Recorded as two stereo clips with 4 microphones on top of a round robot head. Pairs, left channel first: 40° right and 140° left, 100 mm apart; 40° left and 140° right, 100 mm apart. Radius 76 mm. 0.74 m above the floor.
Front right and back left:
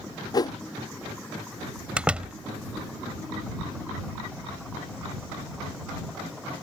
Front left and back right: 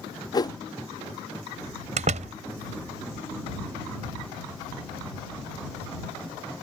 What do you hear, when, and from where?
0.3 s a whoosh: straight ahead
2.0 s a door slam: 140° right